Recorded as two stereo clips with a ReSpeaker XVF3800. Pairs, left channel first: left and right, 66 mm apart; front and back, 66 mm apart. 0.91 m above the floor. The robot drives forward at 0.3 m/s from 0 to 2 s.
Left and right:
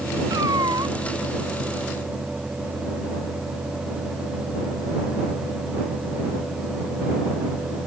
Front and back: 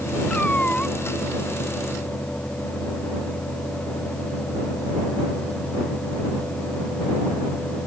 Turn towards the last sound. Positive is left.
turn(degrees=-75)